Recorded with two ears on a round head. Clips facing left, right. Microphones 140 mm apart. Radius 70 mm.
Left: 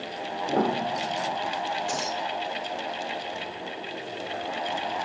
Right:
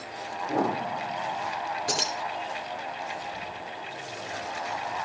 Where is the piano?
55° left (ahead or behind), 3 m.